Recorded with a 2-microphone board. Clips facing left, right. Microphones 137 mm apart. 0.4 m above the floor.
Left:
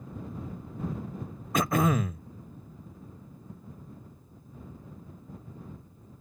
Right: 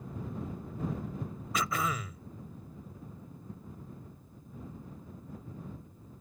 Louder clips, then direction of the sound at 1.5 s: Left 8 dB; 50° left (ahead or behind).